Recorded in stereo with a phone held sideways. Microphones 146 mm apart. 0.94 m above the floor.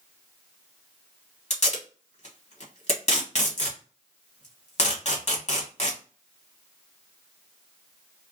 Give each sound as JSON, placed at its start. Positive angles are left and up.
{"t": 1.5, "sound": "tape being pulled", "side_deg": 50, "distance_m": 1.4}